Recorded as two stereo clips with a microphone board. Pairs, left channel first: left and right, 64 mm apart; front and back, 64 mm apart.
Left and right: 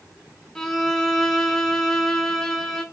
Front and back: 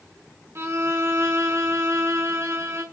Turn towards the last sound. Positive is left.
turn(degrees=165)